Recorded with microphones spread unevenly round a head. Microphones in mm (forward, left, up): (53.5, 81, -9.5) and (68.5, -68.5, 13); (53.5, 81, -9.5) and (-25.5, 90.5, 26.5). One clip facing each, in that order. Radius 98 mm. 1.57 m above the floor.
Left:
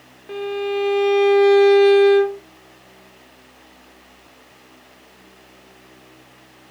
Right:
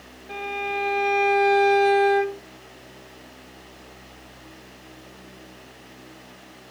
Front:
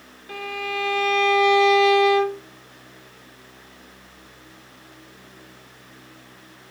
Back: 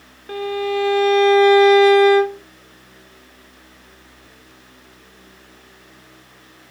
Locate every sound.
0.3 s a violin: 155° left, 0.9 m